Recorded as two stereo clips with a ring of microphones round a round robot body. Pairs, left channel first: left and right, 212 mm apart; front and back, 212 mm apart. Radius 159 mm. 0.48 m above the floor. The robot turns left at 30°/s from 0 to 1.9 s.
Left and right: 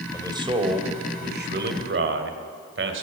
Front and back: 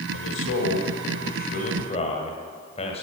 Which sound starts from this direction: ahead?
A man speaking, at 0.1 s.